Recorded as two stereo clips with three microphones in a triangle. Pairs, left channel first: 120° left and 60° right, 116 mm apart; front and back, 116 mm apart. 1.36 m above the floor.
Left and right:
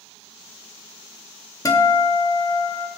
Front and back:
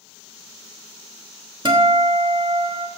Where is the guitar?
165° left, 0.9 m.